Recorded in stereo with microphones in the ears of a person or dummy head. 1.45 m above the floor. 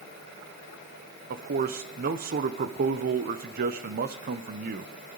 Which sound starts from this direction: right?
A man speaking, at 1.3 s.